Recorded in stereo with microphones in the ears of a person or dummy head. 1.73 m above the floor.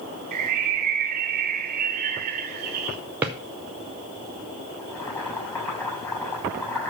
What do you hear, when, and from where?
0.3 s a bird: 45° right (ahead or behind), 0.9 m
3.2 s a drawer: 10° right (ahead or behind), 0.8 m
4.8 s boiling: 15° left (ahead or behind), 7.5 m